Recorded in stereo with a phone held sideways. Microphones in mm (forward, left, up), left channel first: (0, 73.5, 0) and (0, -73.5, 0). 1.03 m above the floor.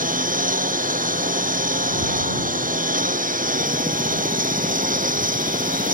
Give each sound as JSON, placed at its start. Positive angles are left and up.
{"t": 0.0, "sound": "a lawn mower", "side_deg": -80}